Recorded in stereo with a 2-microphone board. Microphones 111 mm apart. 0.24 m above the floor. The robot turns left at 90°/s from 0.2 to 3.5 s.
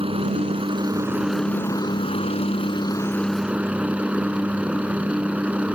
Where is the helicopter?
75° right; by 5.8 s 15° right.